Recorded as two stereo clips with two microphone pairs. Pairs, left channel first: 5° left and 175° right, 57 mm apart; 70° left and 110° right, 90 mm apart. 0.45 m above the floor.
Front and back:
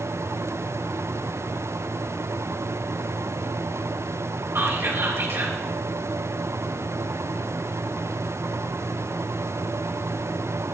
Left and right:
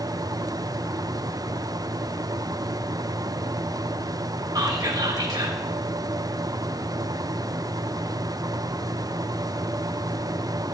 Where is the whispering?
140° right, 2.5 m.